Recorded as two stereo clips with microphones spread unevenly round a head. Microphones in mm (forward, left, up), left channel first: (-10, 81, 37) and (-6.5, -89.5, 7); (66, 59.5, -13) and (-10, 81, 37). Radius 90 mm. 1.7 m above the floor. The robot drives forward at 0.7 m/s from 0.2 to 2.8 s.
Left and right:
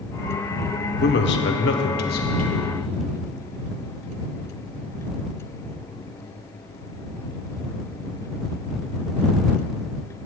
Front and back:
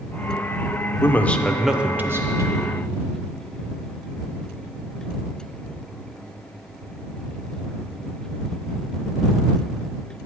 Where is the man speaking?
60° left, 0.9 m; by 2.8 s 140° left, 1.2 m.